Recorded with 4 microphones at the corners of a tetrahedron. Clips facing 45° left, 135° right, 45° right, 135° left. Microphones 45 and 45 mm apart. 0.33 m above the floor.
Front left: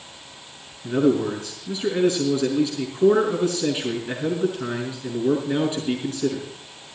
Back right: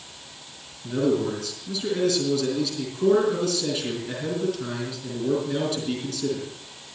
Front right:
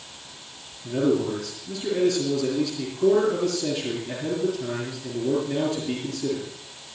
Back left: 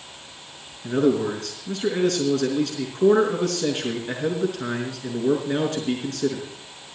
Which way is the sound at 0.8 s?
105° left.